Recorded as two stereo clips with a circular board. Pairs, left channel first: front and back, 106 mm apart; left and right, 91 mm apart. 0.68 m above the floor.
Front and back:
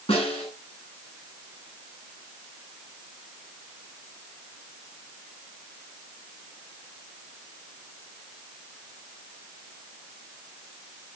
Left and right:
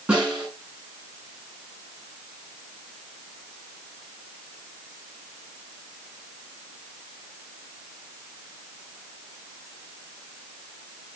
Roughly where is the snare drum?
Ahead.